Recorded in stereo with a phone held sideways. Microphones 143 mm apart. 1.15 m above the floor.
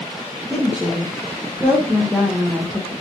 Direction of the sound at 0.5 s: 10° right (ahead or behind).